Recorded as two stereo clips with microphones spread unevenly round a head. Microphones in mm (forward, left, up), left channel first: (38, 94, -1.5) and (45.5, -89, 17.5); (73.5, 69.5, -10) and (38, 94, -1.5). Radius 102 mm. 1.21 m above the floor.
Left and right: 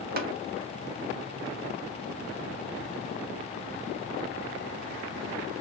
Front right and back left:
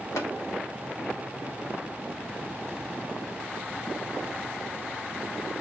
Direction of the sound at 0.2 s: 50° right.